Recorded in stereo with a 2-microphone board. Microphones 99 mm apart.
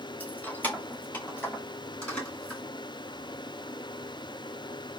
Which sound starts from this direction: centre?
Keys jangling, at 0.2 s.